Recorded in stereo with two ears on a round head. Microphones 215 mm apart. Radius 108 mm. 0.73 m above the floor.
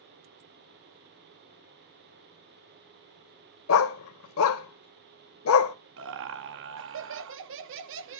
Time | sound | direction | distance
3.7 | a dog barking | 60° left (ahead or behind) | 0.7 m
6.0 | laughter | 55° right (ahead or behind) | 0.8 m